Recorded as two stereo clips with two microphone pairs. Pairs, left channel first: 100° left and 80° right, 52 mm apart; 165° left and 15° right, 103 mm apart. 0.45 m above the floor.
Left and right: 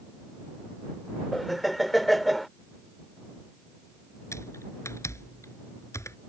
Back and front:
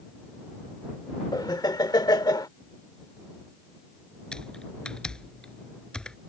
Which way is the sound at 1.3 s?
175° right.